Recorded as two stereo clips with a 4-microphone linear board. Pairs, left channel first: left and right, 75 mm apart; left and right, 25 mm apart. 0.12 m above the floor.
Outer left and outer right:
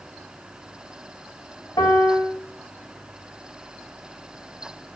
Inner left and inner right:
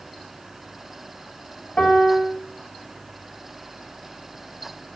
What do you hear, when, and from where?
1.8 s a piano: 80° left, 3.5 m